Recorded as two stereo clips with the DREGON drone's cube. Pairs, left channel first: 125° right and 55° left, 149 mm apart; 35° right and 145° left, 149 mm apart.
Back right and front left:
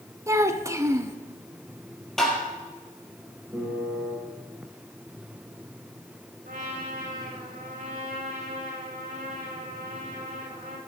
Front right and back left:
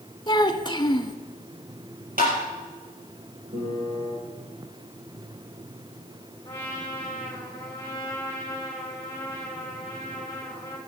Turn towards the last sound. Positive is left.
turn(degrees=35)